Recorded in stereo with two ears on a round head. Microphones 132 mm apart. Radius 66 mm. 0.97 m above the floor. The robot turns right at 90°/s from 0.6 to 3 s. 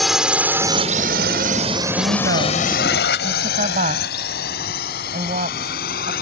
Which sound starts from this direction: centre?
A drone, at 0.0 s.